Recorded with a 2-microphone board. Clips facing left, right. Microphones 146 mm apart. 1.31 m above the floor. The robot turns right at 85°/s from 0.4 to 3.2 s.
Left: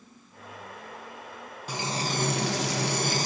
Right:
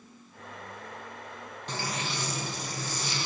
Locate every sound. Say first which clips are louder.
1.7 s frying: left 4 dB; 10° left, 1.4 m; by 3.3 s 140° left, 1.4 m